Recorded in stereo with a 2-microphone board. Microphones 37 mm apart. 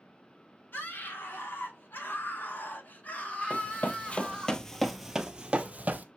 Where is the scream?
70° left (ahead or behind), 2.5 m; by 4.5 s centre (ahead or behind), 1.3 m.